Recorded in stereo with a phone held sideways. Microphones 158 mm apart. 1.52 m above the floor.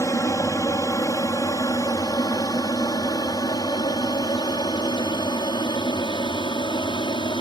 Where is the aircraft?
20° left (ahead or behind); by 7.4 s 30° left (ahead or behind).